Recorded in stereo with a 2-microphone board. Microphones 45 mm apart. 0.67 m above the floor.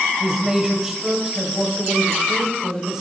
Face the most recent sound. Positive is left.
turn(degrees=-10)  # may be behind; listen again after turning